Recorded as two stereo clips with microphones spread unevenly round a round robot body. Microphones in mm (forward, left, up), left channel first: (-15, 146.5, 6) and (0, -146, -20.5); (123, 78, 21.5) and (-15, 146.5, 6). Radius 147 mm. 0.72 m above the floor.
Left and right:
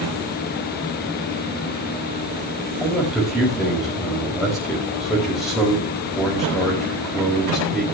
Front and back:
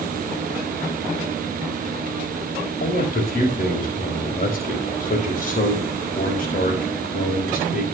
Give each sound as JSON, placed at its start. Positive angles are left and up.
{"t": 2.8, "sound": "a man speaking", "azimuth_deg": 0, "distance_m": 4.5}